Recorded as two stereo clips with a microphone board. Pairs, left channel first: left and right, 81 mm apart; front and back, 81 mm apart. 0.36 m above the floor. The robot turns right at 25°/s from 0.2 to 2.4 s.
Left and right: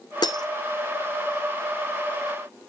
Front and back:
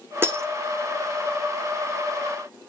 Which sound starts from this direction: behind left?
Breaking glass, at 0.2 s.